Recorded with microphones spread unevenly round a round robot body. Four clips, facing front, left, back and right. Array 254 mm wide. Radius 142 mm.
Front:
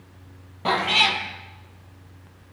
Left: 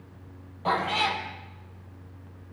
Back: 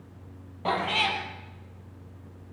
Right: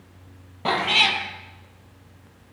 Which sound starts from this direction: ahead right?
A cat meowing, at 0.7 s.